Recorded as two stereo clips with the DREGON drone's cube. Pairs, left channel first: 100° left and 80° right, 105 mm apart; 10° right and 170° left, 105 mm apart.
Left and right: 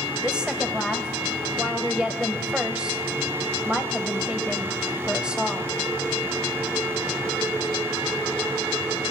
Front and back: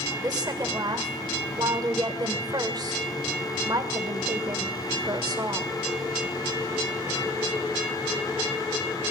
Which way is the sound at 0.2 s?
155° right.